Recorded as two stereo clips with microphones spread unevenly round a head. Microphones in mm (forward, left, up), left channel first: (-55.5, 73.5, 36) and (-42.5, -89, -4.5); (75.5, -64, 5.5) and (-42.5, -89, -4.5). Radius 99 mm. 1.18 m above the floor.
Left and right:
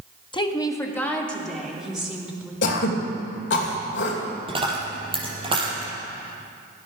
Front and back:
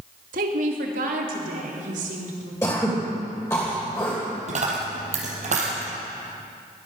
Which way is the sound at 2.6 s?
90° left.